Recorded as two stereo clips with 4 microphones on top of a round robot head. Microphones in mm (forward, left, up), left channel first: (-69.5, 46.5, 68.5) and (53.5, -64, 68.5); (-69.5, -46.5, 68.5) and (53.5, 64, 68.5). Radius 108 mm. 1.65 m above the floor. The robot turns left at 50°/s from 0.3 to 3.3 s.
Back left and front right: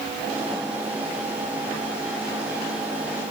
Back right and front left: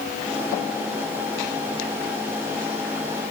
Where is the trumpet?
No trumpet in this recording.